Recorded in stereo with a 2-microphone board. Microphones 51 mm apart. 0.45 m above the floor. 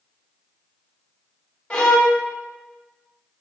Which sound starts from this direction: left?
A violin, at 1.7 s.